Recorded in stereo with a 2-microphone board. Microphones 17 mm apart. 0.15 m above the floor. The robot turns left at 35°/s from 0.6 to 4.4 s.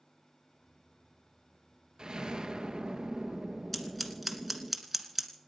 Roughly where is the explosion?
Right.